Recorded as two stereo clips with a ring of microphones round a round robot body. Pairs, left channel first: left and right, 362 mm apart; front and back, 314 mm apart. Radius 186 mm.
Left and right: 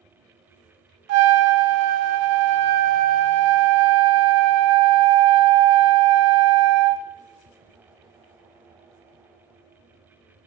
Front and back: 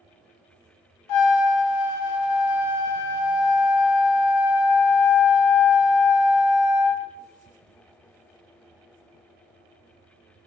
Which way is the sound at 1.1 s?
40° right.